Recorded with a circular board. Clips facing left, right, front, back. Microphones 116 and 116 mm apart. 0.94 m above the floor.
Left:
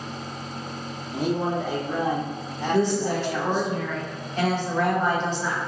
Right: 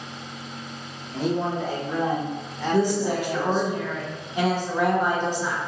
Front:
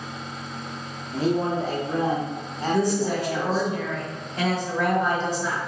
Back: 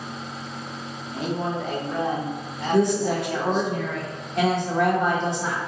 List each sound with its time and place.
1.1 s a man speaking: 25° left, 0.8 m
2.7 s a woman speaking: 165° right, 1.0 m